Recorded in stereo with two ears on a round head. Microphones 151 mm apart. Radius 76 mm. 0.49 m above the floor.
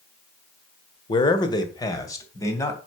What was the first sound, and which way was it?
A man speaking, 30° left (ahead or behind).